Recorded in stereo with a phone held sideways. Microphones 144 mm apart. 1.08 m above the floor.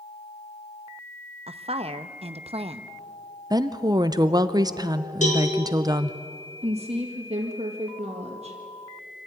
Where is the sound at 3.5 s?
25° right (ahead or behind), 0.7 m.